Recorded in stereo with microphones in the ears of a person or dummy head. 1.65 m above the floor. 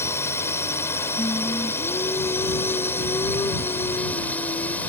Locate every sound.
0.0 s a drone: 15° left (ahead or behind); by 4.9 s 10° left (ahead or behind)
1.2 s singing: 15° left (ahead or behind)